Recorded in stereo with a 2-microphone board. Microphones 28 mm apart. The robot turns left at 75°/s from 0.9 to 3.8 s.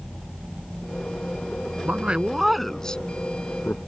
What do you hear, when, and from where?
1.9 s a man speaking: 55° right (ahead or behind); by 3.8 s 80° left